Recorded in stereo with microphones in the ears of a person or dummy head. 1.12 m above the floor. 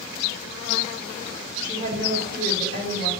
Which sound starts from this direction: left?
A woman speaking, at 1.6 s.